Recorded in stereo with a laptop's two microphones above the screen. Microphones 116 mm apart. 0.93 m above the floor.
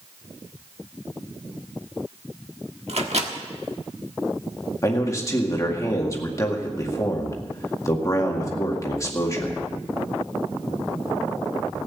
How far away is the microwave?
About 1.5 m.